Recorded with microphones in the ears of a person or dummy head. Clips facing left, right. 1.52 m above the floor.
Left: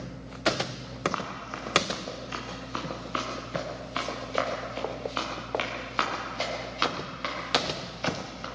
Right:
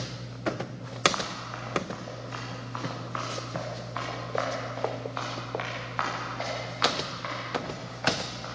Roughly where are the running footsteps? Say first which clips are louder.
Even; left.